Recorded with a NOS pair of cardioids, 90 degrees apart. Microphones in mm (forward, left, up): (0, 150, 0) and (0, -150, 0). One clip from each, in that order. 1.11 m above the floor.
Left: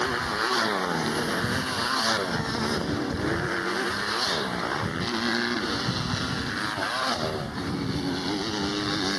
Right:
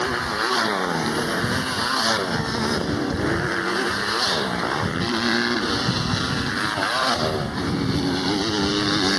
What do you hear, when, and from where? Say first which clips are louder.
0.0 s a motorcycle: right 3 dB; 20° right; by 9.2 s 45° right